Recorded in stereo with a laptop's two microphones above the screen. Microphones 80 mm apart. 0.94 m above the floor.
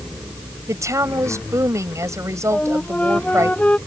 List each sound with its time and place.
0.7 s a woman speaking: 40° right (ahead or behind)
2.5 s a flute: 15° left (ahead or behind)